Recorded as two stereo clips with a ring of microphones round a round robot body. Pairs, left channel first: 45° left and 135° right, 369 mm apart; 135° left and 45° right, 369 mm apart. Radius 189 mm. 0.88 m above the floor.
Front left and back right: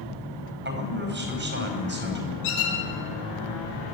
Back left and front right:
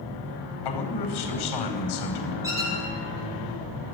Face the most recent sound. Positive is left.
turn(degrees=35)